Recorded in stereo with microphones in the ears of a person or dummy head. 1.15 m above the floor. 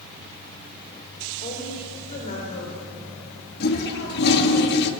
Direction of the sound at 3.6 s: 55° left (ahead or behind).